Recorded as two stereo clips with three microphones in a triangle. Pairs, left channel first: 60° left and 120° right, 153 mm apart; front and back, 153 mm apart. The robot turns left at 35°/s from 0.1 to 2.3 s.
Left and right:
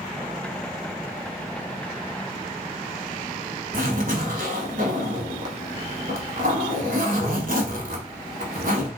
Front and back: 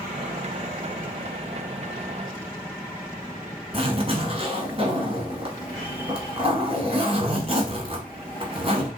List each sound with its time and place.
3.7 s a zipper: 135° right, 1.1 m